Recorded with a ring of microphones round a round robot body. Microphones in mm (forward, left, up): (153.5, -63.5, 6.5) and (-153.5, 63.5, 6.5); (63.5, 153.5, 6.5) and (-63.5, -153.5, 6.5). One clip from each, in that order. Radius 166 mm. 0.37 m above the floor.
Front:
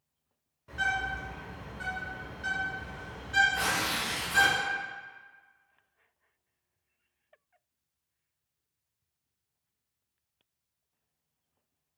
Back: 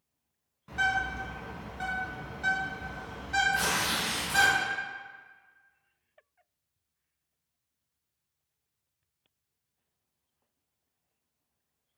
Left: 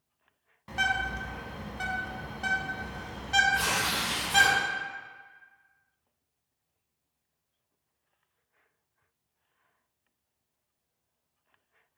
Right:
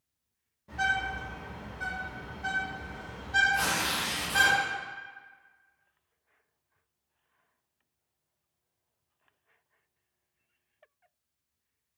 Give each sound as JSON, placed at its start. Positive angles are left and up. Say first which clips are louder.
{"t": 0.7, "sound": "a bird", "louder": "back 2 dB, left 1 dB", "azimuth_deg": 80, "distance_m": 0.6}
{"t": 3.5, "sound": "tearing paper", "louder": "back 1 dB, left 1 dB", "azimuth_deg": 155, "distance_m": 1.0}